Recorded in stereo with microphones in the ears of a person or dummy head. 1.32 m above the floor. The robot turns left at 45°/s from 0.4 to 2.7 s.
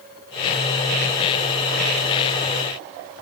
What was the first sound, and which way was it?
Only background noise.